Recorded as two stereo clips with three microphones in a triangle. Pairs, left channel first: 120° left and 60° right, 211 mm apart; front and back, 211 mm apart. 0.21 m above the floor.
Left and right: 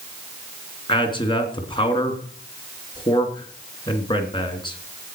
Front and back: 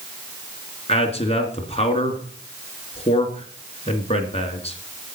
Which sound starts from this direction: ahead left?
A man speaking, at 0.9 s.